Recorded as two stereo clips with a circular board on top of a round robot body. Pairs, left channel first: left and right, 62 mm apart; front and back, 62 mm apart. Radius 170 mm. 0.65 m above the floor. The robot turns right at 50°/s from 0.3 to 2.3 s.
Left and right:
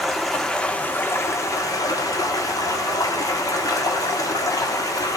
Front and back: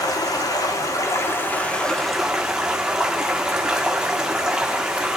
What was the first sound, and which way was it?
Running water, straight ahead.